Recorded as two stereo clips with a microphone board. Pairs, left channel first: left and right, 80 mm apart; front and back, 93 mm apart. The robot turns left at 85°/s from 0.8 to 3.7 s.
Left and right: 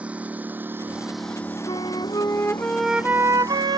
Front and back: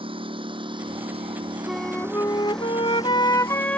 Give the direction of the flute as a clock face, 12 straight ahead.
9 o'clock.